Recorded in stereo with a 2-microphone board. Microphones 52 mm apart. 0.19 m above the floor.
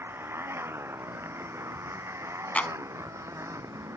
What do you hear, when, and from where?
0.0 s a motorcycle: 50° right (ahead or behind); by 4.0 s 75° right (ahead or behind)
2.5 s a clap: 25° left (ahead or behind)